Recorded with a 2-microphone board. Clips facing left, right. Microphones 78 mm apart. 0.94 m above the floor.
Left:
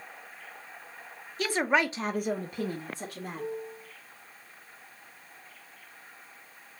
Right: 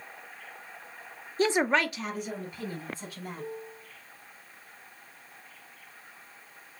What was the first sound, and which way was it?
A woman speaking, 35° right (ahead or behind).